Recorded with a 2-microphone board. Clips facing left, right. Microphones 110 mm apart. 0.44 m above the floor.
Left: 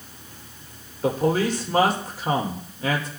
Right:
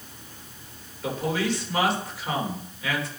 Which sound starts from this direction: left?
A man speaking, at 1.0 s.